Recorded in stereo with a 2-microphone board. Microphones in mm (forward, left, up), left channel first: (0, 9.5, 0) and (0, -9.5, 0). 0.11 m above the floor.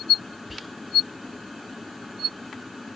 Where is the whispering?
5° right (ahead or behind), 1.2 m.